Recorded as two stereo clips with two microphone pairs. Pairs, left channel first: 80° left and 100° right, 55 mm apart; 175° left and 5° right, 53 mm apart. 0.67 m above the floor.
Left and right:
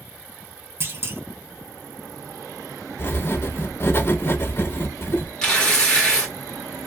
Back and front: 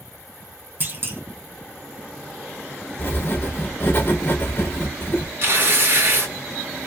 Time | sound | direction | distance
0.8 | a clunk | 60° right | 0.6 m
3.0 | writing | 120° left | 0.7 m
5.4 | tearing paper | 15° left | 1.1 m